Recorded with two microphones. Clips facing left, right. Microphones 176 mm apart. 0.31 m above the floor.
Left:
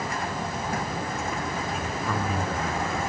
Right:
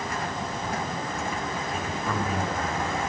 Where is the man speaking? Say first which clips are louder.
Even; centre (ahead or behind), 1.9 m.